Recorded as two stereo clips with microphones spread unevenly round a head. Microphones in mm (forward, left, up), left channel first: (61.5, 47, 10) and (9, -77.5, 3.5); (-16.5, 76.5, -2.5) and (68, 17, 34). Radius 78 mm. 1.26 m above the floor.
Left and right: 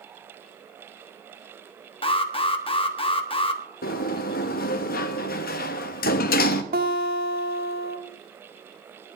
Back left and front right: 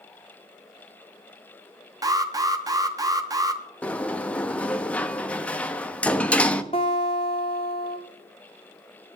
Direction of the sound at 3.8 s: 60° left.